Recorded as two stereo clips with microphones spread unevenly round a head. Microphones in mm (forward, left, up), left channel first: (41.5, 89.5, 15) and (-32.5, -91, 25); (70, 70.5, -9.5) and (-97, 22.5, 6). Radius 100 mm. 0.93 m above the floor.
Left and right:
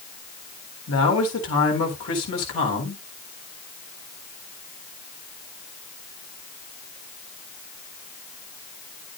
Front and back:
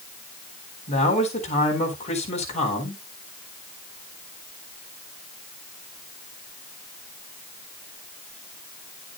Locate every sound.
0.9 s a man speaking: 65° left, 4 m